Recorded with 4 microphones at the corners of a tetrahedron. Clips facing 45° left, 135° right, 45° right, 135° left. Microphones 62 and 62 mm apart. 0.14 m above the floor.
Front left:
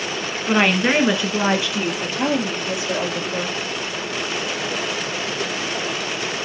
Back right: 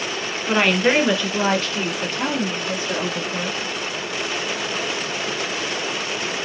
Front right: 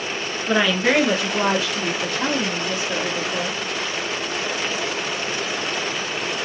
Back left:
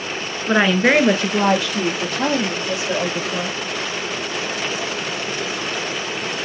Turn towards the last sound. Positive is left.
turn(degrees=120)